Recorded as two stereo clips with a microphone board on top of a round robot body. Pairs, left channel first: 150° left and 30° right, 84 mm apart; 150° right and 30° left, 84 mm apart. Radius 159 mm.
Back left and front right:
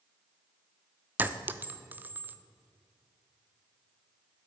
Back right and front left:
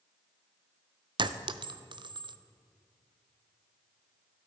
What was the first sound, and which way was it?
A clink, 35° left.